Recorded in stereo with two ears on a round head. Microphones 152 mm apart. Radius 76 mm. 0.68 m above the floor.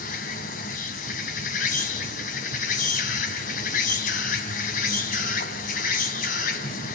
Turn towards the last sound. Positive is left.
turn(degrees=55)  # may be behind; listen again after turning